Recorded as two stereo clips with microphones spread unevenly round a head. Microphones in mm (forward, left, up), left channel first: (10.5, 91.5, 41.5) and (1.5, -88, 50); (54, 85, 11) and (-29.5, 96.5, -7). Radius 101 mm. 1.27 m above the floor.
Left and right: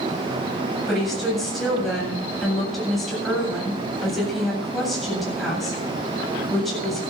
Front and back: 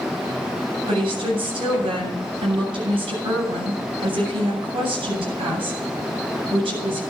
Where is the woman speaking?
175° left, 8 m.